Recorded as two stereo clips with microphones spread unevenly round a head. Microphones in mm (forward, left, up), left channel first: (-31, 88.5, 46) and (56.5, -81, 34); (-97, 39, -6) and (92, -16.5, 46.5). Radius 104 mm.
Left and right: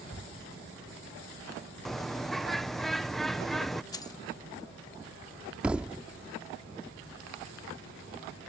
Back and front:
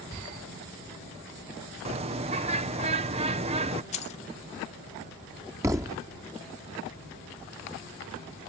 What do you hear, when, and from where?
1.9 s a bird: 30° left
3.9 s keys jangling: 125° left
5.6 s a thud: 25° left